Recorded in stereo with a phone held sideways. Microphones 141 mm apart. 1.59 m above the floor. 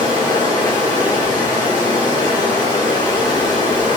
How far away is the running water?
About 3 m.